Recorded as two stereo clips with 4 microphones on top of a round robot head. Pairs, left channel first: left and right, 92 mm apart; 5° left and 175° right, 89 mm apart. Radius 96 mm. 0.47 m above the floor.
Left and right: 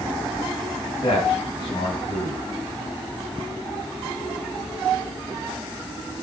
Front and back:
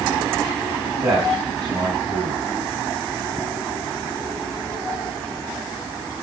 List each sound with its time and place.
1.0 s a man speaking: 140° left, 3 m